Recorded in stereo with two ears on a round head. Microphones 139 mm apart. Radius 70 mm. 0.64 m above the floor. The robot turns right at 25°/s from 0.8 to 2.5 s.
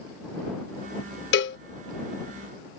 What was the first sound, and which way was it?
A cowbell, 75° left (ahead or behind).